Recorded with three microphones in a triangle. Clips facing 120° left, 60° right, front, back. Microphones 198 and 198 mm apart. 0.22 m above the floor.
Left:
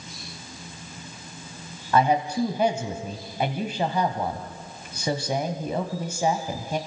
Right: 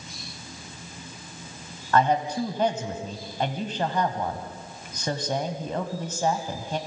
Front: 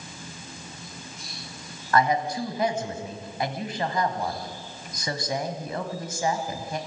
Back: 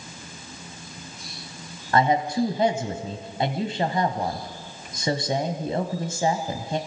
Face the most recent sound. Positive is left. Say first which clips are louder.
# left 1 dB, back 2 dB
turn(degrees=-170)